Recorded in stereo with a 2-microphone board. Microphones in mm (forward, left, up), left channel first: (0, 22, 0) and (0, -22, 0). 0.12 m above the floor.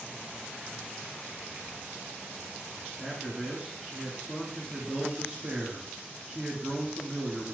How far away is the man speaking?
About 1.5 m.